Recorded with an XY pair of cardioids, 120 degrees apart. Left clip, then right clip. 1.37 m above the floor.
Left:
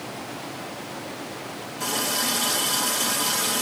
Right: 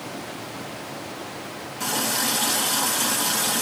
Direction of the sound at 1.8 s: 10° right.